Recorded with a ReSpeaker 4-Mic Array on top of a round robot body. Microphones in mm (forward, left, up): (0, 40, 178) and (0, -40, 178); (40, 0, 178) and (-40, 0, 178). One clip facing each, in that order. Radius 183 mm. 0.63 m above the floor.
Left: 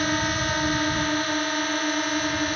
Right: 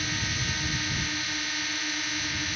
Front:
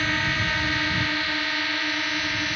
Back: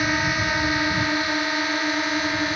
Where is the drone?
110° left; by 2.6 s 120° left.